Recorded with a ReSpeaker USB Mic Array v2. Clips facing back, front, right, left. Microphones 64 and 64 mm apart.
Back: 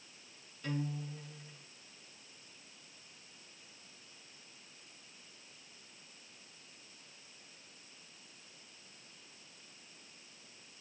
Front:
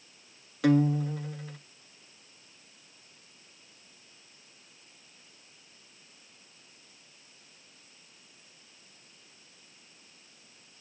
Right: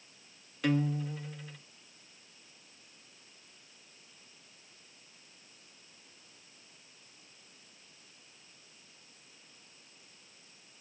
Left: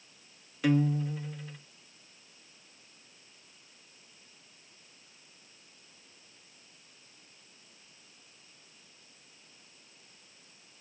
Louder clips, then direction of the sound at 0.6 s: Front 16 dB, left 3 dB; 5° left.